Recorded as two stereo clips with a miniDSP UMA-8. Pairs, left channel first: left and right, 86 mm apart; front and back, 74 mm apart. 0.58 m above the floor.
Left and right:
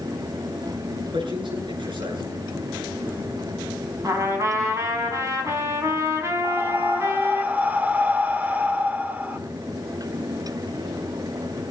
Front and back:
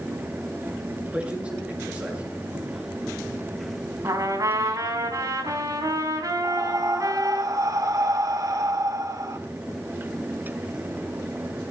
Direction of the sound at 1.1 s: 105° right.